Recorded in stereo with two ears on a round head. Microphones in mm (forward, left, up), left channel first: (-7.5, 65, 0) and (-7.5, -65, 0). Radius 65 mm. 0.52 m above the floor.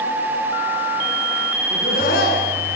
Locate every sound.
1.7 s laughter: 70° left (ahead or behind), 7 m